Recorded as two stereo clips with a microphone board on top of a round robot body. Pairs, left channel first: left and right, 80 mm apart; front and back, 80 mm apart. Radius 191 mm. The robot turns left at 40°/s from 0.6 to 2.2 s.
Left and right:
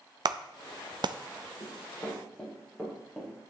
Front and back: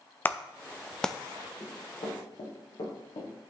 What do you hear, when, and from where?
0.2 s a clap: 65° right, 0.6 m; by 1.1 s 85° right, 0.6 m
1.6 s running footsteps: 45° left, 5 m; by 3.3 s 10° right, 4.5 m